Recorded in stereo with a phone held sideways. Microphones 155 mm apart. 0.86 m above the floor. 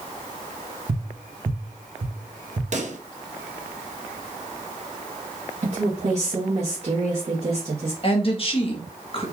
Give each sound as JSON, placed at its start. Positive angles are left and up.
{"t": 0.9, "sound": "tapping", "side_deg": -65, "distance_m": 1.1}
{"t": 2.7, "sound": "a pop", "side_deg": -55, "distance_m": 0.6}
{"t": 5.6, "sound": "a woman speaking", "side_deg": -50, "distance_m": 1.1}
{"t": 8.0, "sound": "a woman speaking", "side_deg": 40, "distance_m": 1.1}